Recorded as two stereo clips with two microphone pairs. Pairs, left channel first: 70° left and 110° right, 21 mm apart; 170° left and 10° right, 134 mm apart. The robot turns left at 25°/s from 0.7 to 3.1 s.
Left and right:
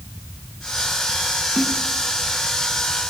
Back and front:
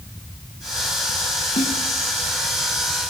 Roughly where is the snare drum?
Behind.